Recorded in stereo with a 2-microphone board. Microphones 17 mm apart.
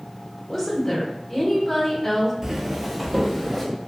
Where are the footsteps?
25° right (ahead or behind), 0.5 m; by 3.6 s centre (ahead or behind), 1.1 m.